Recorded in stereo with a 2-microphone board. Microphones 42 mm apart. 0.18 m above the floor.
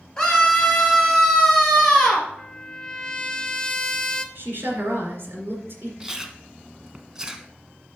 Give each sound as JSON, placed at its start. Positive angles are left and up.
{"t": 0.2, "sound": "a scream", "side_deg": 15, "distance_m": 3.5}
{"t": 2.4, "sound": "a trumpet", "side_deg": 20, "distance_m": 0.5}
{"t": 4.3, "sound": "a woman speaking", "side_deg": -60, "distance_m": 2.5}
{"t": 6.0, "sound": "chewing", "side_deg": -15, "distance_m": 0.8}